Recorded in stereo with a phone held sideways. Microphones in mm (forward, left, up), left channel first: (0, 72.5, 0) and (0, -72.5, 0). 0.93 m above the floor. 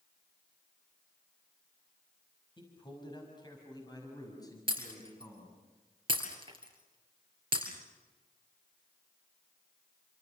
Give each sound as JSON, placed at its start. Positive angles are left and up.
{"t": 2.6, "sound": "a man speaking", "side_deg": 35, "distance_m": 5.5}
{"t": 4.7, "sound": "breaking glass", "side_deg": -35, "distance_m": 3.5}